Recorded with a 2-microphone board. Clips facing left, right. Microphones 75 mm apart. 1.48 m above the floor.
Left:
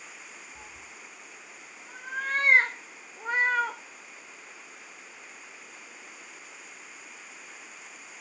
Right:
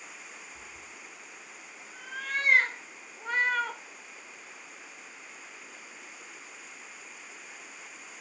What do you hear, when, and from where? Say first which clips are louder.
0.6 s a cat meowing: left 1 dB; 50° left (ahead or behind), 4.5 m; by 3.8 s 10° left (ahead or behind), 3 m